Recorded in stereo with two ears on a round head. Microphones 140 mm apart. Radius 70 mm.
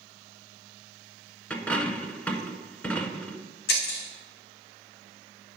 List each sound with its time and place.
1.5 s a dropped coin: 10° left (ahead or behind), 0.9 m
3.7 s breaking glass: 70° left (ahead or behind), 2 m